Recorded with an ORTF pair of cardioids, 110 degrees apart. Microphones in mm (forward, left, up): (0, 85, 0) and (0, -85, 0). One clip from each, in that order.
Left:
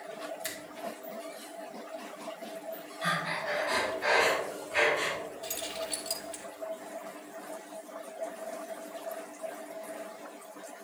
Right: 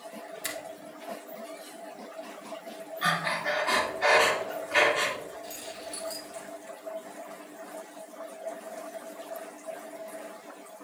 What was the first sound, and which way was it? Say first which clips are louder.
A finger snap: right 3 dB; 20° right.